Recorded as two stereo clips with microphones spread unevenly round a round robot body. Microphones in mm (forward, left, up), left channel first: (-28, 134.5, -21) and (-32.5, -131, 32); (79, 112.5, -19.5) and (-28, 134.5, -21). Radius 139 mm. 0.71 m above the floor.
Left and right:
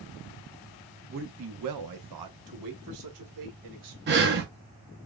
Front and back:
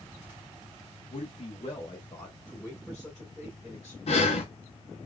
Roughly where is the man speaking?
Ahead right.